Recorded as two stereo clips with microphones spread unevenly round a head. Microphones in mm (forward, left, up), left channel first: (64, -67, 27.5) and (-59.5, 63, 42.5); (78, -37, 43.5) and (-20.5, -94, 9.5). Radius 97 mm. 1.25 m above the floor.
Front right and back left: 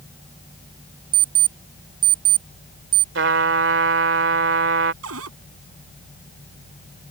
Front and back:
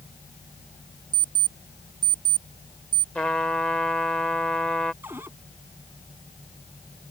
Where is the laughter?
No laughter in this recording.